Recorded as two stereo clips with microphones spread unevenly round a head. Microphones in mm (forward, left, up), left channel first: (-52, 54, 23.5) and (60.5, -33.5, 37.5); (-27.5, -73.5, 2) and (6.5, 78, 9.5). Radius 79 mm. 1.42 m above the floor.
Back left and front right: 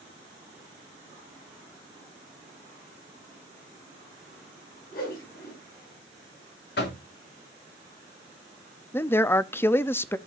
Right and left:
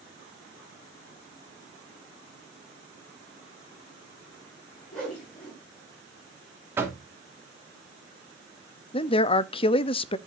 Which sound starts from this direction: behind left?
Knocking, at 6.8 s.